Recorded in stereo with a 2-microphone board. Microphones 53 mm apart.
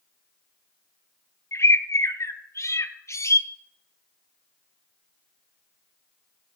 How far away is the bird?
About 0.7 m.